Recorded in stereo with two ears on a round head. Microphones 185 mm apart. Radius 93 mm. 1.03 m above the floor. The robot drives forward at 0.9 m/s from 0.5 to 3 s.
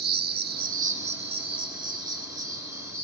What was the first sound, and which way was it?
An insect, 45° right (ahead or behind).